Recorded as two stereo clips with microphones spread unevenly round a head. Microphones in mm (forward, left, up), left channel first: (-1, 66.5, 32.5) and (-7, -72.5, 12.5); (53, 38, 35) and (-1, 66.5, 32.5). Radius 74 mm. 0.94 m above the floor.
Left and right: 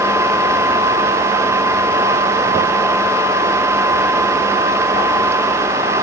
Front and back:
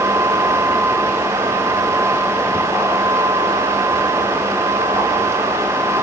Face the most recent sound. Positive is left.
No sound to turn to.